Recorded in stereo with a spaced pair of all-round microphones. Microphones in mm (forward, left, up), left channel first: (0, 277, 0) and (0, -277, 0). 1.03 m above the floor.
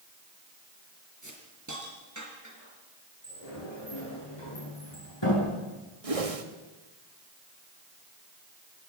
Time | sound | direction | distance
1.2 | a hiss | 30° right (ahead or behind) | 5 m
3.2 | a sliding door | 50° left (ahead or behind) | 9.5 m
6.0 | a whoosh | 80° right | 1.8 m